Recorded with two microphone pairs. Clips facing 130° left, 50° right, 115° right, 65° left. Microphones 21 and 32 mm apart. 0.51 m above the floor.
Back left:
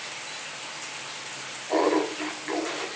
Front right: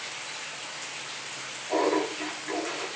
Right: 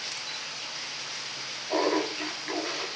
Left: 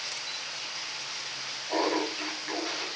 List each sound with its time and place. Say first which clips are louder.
1.7 s laughter: back left 2 dB, right 2 dB; 165° left, 0.7 m